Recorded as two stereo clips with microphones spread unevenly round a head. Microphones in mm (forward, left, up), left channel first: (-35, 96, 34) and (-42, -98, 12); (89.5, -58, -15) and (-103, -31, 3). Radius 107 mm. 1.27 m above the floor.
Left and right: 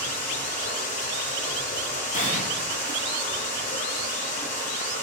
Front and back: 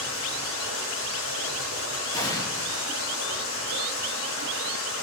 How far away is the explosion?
About 0.6 m.